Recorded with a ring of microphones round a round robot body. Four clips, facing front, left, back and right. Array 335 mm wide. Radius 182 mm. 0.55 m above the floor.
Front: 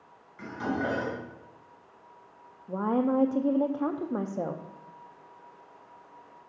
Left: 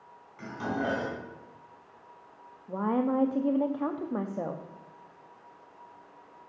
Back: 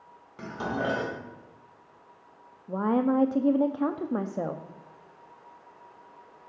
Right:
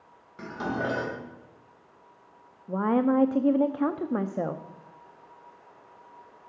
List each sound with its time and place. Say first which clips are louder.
0.4 s dishes clattering: right 1 dB, even; 145° right, 1.9 m
2.7 s a woman speaking: right 4 dB, back 2 dB; 105° right, 0.6 m